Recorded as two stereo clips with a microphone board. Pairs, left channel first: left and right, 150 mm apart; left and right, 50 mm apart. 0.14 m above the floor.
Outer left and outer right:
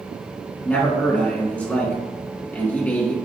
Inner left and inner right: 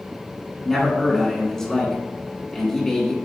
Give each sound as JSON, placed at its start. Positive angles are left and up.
{"t": 0.7, "sound": "a man speaking", "side_deg": 10, "distance_m": 1.6}